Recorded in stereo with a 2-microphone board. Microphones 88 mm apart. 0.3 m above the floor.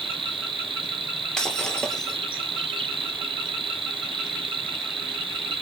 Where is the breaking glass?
10° left (ahead or behind), 3 m.